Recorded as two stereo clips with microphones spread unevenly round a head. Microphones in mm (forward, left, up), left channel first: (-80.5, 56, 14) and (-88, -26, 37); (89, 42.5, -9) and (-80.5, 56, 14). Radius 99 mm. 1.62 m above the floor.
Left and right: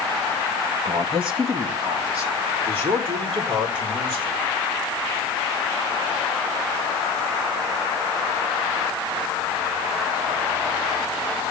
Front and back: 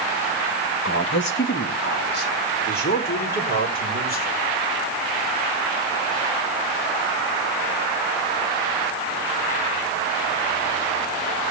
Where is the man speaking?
40° right, 1.5 m; by 4.3 s 55° right, 6 m.